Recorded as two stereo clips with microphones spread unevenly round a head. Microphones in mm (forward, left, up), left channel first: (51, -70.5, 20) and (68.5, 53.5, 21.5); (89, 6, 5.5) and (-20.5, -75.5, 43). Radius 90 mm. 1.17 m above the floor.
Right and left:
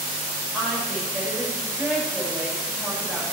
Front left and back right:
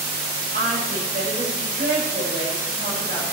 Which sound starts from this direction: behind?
A woman speaking, at 0.5 s.